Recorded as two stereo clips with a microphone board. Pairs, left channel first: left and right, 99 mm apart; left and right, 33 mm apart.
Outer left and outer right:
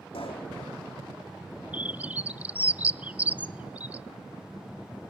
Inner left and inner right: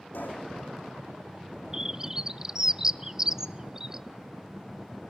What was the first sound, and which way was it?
A pop, 80° left.